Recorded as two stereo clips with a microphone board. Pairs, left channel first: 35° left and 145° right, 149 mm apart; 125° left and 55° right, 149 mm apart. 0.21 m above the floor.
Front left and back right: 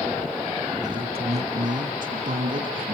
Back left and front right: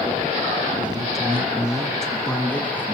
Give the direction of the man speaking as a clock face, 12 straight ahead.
3 o'clock.